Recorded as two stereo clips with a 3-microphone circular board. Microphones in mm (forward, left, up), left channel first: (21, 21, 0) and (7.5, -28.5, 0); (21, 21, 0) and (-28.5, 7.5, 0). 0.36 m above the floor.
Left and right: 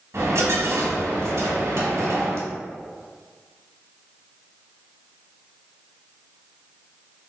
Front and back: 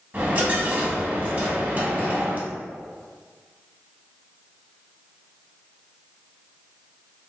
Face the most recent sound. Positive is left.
turn(degrees=-110)